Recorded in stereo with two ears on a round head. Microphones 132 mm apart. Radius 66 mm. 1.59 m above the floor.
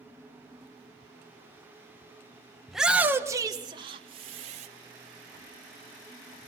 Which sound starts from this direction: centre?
A shout, at 2.7 s.